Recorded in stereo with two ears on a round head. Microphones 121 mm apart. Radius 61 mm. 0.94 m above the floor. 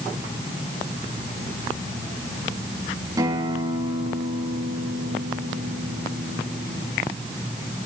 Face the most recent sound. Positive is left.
turn(degrees=-25)  # may be behind; listen again after turning